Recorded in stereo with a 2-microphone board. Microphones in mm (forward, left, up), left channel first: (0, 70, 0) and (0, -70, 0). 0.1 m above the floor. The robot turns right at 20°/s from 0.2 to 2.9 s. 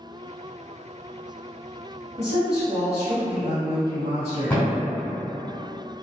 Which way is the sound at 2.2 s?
30° right (ahead or behind).